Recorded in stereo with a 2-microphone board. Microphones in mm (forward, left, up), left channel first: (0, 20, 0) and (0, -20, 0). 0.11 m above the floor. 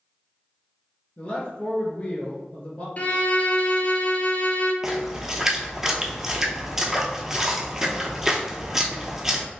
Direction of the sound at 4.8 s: 10° right (ahead or behind).